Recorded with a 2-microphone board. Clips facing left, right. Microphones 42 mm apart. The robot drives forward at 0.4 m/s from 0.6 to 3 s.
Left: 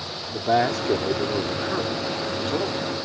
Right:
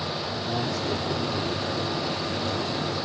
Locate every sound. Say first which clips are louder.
0.3 s a man speaking: left 11 dB; 75° left (ahead or behind)